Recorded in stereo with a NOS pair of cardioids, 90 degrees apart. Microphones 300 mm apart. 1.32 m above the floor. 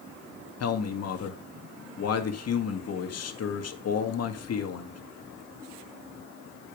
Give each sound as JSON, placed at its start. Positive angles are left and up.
{"t": 0.6, "sound": "a man speaking", "azimuth_deg": 50, "distance_m": 2.0}